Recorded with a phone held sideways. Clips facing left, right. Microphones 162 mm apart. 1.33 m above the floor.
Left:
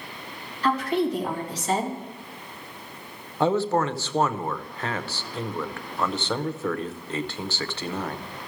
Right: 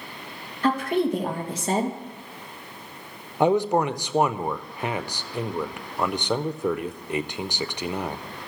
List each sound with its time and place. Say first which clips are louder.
0.6 s a woman speaking: right 1 dB; 50° right (ahead or behind), 2 m
3.4 s a man speaking: right 2 dB; 15° right (ahead or behind), 0.6 m